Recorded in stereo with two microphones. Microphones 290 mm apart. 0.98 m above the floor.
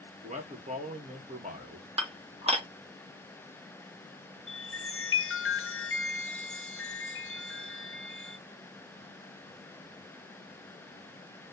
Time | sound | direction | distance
0.2 | a man speaking | 25° right (ahead or behind) | 1.2 m
2.0 | dishes clattering | 20° right (ahead or behind) | 1.0 m
4.5 | a chime | 45° left (ahead or behind) | 0.5 m